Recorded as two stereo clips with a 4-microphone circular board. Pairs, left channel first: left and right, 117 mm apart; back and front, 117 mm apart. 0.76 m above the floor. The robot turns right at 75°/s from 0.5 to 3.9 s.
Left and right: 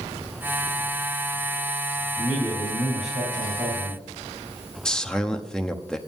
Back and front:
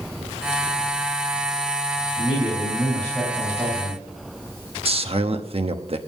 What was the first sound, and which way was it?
A man speaking, 165° right.